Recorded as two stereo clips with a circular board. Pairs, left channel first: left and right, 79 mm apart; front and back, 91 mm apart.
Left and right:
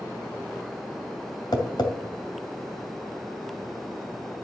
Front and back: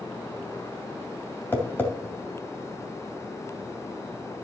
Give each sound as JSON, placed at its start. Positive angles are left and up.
{"t": 1.5, "sound": "tapping", "azimuth_deg": 65, "distance_m": 2.5}